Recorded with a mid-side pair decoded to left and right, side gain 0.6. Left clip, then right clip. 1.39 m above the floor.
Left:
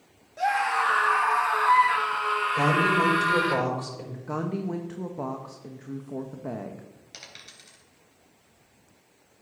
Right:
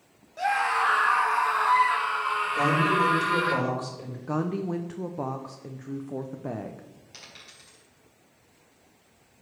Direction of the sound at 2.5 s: 5° left.